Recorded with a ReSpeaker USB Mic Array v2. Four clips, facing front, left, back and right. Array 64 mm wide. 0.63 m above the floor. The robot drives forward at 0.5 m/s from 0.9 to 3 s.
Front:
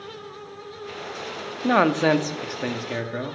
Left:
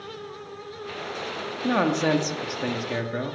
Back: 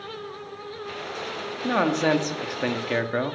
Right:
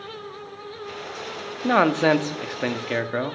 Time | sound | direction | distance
1.6 | a man speaking | 55° right | 0.9 m